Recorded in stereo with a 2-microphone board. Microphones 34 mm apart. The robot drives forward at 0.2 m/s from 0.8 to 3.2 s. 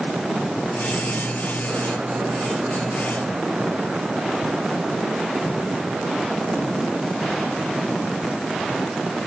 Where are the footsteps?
I don't hear footsteps.